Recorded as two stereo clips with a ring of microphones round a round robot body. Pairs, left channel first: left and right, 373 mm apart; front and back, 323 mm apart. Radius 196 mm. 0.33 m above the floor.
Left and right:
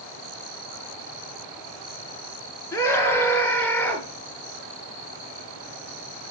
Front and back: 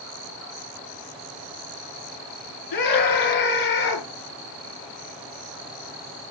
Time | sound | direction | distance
2.7 | a scream | 5° left | 5 m